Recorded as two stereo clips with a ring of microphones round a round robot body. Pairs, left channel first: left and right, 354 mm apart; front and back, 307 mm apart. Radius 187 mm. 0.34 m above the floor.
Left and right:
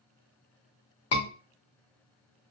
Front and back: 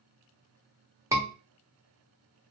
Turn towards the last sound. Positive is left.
turn(degrees=105)